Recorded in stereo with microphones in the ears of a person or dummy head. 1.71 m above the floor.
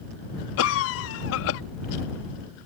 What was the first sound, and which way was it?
A cough, 75° left (ahead or behind).